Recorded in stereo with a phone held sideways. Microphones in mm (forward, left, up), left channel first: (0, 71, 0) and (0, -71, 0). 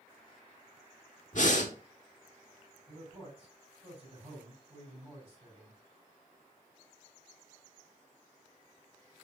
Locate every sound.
1.3 s breathing: 60° left (ahead or behind), 1.0 m
2.9 s a man speaking: 40° right (ahead or behind), 4.5 m